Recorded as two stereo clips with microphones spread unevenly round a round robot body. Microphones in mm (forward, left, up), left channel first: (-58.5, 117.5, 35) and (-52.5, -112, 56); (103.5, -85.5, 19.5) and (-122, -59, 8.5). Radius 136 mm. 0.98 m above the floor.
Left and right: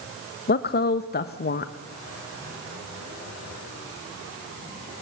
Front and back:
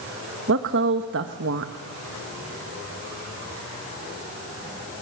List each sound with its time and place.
0.5 s a woman speaking: 135° left, 1.0 m